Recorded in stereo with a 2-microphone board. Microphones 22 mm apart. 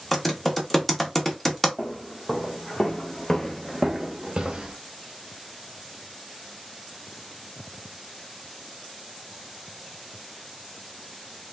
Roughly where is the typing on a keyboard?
Centre.